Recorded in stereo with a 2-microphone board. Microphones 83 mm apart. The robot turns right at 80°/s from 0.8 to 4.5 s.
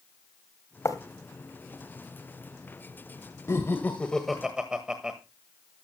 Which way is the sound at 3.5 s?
35° left (ahead or behind).